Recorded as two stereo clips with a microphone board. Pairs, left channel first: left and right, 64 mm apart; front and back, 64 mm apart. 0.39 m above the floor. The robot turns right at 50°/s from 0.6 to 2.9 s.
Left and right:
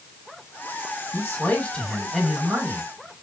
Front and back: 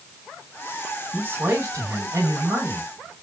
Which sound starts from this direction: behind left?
A man speaking, at 1.1 s.